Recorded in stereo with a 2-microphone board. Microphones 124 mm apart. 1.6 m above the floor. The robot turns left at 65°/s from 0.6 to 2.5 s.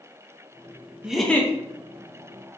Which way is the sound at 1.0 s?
170° right.